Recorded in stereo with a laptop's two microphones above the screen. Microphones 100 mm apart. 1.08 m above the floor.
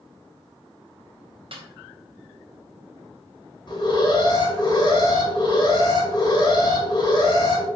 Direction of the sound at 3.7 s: 45° left (ahead or behind).